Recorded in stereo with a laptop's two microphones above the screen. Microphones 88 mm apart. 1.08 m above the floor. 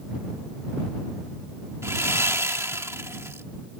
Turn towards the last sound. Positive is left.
turn(degrees=-30)  # may be behind; listen again after turning